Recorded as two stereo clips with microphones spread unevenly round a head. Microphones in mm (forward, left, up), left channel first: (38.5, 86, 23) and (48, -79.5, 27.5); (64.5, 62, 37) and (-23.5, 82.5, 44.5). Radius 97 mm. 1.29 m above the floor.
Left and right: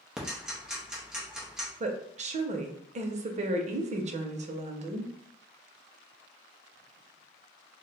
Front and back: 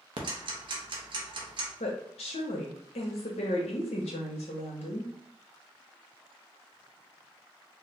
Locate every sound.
0.2 s ticking: 175° right, 0.6 m
1.8 s a woman speaking: 40° right, 0.6 m